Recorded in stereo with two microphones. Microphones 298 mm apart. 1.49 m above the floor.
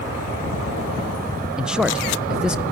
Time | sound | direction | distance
1.6 | a man speaking | centre (ahead or behind) | 0.5 m